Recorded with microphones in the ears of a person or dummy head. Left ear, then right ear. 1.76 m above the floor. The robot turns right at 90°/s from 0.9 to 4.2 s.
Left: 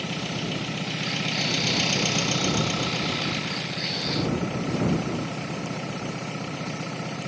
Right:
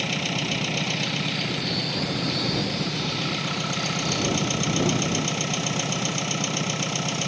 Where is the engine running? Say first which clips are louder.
Right 4 dB; 35° right; by 7.3 s 100° right.